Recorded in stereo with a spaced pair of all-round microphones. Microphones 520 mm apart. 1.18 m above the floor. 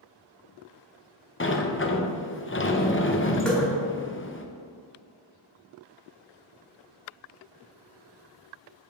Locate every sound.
1.4 s a sliding door: 25° left (ahead or behind), 0.5 m
3.5 s dripping: centre (ahead or behind), 1.7 m